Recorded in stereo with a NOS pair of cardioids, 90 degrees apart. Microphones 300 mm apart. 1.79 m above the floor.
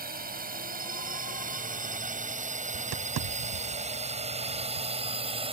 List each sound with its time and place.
0.0 s a drone: 30° right; by 5.5 s 20° right
2.7 s tapping: 70° right